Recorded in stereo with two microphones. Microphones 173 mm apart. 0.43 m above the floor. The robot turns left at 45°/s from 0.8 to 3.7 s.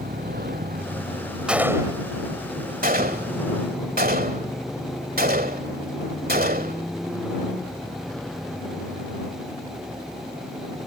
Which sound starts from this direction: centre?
A gunshot, at 1.5 s.